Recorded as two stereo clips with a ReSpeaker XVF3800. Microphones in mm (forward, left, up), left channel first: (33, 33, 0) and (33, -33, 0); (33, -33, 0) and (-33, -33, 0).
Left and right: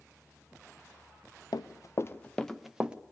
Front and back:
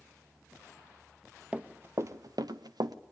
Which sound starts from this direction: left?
Running footsteps, at 1.5 s.